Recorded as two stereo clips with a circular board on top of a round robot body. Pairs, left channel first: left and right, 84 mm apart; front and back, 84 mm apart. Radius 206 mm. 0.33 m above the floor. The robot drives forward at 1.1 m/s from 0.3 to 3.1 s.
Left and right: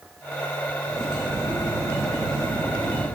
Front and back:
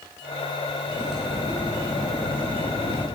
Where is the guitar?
I don't hear a guitar.